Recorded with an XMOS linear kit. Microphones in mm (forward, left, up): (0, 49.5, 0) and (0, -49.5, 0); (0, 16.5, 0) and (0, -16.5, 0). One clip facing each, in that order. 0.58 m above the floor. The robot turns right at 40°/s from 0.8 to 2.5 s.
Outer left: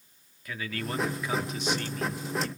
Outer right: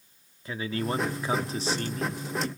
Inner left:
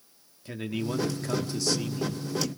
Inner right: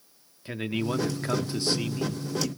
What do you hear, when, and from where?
0.5 s a man speaking: 125° right, 1.0 m; by 2.5 s 55° right, 1.0 m